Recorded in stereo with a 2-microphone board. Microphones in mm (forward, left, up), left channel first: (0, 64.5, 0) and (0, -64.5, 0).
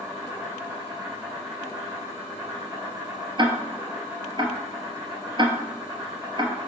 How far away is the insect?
About 3 m.